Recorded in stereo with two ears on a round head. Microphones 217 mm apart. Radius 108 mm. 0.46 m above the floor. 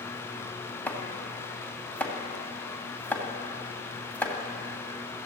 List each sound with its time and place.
0.9 s chopping: 5° left (ahead or behind), 2.5 m